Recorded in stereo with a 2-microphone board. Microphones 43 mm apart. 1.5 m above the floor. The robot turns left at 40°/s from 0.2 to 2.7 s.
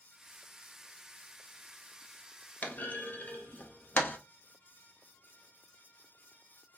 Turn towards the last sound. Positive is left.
turn(degrees=40)  # may be behind; listen again after turning